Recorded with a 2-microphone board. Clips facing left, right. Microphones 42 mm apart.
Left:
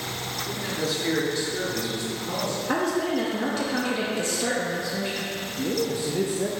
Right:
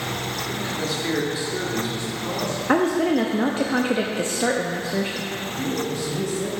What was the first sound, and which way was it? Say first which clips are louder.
A man speaking: left 1 dB; 15° left (ahead or behind).